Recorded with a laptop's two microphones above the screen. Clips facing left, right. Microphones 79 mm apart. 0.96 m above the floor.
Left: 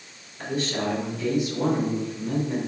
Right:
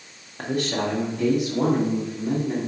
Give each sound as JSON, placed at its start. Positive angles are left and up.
{"t": 0.4, "sound": "a man speaking", "side_deg": -65, "distance_m": 1.7}